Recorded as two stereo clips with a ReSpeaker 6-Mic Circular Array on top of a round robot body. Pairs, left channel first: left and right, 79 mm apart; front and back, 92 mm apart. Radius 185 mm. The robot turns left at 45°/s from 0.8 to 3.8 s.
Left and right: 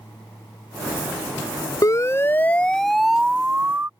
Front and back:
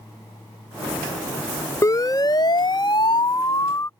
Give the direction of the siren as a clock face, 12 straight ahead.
10 o'clock.